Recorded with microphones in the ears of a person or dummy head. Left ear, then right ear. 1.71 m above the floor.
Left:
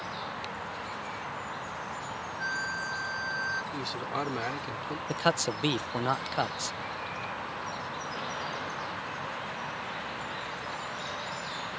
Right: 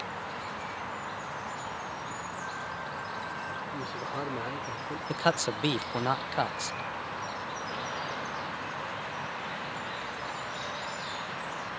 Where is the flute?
75° left (ahead or behind).